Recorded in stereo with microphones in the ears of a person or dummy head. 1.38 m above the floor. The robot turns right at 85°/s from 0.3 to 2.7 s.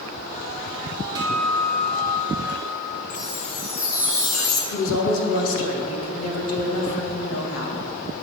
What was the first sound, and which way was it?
A guitar, 30° right.